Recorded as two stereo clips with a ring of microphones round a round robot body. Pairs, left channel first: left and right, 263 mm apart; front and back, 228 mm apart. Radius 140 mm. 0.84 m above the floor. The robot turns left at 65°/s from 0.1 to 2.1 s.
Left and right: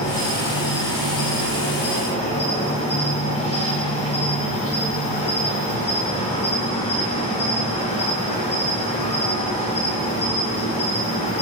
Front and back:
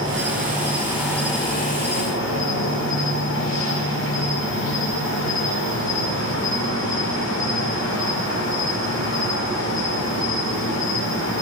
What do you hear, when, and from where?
0.0 s an insect: 155° left, 3.5 m; by 11.4 s 25° left, 3.5 m